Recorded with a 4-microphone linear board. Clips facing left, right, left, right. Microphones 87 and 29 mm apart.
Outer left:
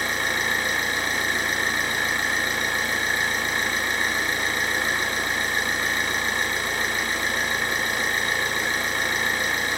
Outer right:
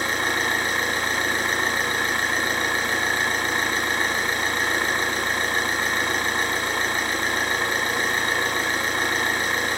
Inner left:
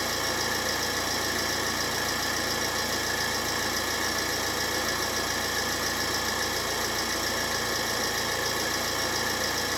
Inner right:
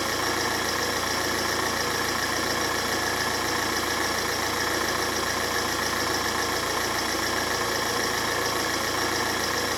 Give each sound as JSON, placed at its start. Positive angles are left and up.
{"t": 0.0, "sound": "an engine running", "side_deg": -65, "distance_m": 3.5}